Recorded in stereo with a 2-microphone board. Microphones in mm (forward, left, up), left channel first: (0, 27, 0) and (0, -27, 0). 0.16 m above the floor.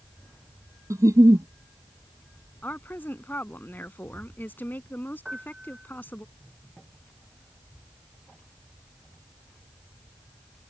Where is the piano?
15° right (ahead or behind).